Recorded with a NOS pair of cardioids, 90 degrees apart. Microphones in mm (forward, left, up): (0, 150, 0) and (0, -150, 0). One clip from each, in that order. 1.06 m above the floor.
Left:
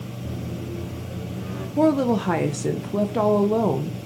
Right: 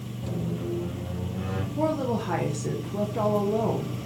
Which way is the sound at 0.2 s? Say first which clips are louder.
Right 3 dB; 60° right.